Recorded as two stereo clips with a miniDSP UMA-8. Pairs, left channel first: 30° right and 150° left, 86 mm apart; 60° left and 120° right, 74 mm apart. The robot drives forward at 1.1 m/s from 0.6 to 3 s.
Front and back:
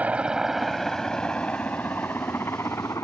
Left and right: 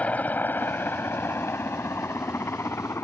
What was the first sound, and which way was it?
A helicopter, 100° left.